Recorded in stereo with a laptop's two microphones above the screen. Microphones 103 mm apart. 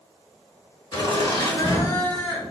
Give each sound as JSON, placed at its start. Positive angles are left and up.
{"t": 0.9, "sound": "laughter", "side_deg": 55, "distance_m": 1.2}